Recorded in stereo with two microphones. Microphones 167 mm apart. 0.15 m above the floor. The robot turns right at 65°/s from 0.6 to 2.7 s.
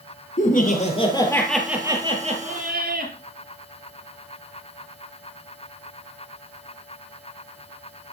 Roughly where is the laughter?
Behind left.